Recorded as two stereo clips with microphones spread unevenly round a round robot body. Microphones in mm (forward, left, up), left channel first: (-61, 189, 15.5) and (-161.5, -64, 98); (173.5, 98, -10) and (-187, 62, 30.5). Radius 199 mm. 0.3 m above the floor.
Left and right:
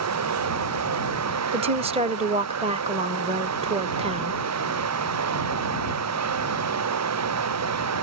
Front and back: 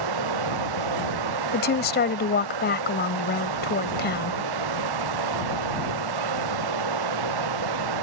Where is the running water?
135° right.